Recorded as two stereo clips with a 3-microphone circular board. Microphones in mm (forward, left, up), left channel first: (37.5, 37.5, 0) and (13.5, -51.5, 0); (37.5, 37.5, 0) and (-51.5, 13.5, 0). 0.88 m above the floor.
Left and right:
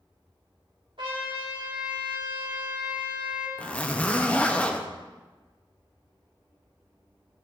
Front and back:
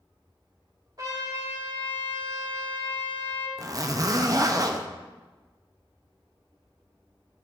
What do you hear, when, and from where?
1.0 s a trumpet: 120° right, 2.5 m
3.6 s a zipper: 150° left, 0.7 m